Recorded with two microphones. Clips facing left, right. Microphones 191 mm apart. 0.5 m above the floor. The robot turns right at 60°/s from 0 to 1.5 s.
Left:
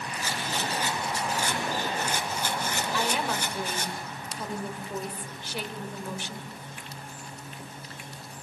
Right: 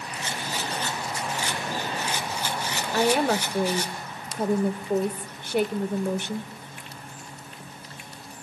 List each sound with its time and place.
0.2 s a rattle: 30° right, 3.5 m; by 3.9 s 50° left, 3.5 m
2.9 s a woman speaking: 55° right (ahead or behind), 1.7 m